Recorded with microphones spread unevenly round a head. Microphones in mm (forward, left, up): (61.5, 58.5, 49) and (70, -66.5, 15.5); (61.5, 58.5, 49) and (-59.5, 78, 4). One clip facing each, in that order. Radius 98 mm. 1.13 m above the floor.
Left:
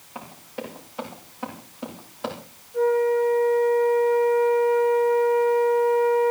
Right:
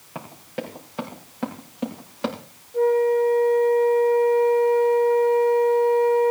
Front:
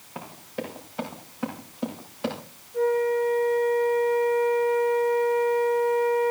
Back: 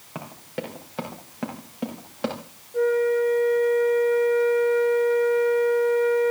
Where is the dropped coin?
No dropped coin in this recording.